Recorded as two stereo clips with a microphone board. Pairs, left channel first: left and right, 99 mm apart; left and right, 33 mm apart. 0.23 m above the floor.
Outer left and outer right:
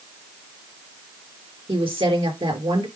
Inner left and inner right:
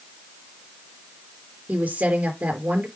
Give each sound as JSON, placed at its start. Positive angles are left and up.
{"t": 1.7, "sound": "a woman speaking", "side_deg": -65, "distance_m": 4.0}